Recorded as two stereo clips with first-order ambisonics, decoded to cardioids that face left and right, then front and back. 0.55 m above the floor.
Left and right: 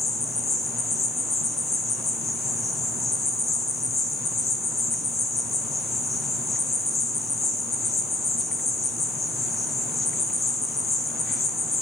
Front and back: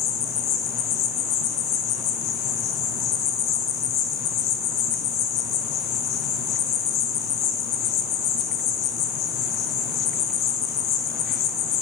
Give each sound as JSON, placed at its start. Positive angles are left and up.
{"t": 0.0, "sound": "an insect", "azimuth_deg": 20, "distance_m": 0.9}